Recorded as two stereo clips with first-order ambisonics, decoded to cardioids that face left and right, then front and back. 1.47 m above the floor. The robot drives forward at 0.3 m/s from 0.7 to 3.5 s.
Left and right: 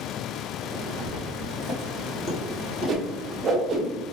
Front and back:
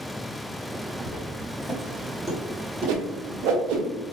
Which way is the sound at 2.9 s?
160° right.